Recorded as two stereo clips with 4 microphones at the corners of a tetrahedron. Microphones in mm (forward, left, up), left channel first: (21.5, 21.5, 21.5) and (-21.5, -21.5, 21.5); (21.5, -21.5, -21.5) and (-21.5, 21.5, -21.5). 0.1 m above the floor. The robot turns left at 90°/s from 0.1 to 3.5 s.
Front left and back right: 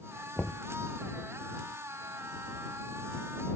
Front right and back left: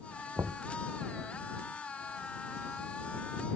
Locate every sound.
0.4 s knocking: 120° left; by 0.6 s 95° left